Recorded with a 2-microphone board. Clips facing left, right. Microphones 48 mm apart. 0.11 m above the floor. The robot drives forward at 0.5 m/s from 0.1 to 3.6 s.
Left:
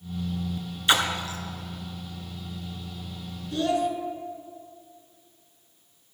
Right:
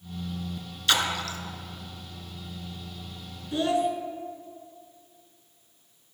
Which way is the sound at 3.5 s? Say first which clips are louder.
Even; 20° right (ahead or behind).